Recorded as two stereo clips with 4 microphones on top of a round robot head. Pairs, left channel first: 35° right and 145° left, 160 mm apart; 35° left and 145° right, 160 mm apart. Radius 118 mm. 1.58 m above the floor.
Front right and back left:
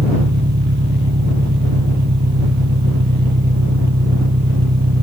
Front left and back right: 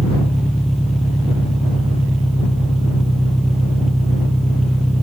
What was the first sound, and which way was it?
An engine running, 125° left.